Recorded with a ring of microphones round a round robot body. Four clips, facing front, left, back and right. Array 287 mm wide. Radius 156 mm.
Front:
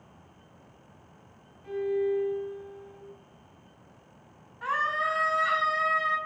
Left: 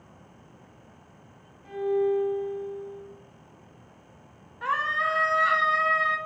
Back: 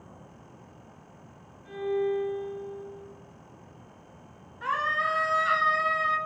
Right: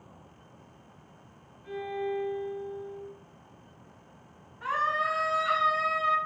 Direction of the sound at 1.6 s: 50° left.